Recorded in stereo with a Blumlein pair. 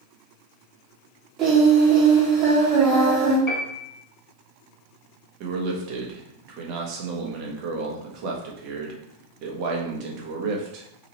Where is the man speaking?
40° right, 0.9 m.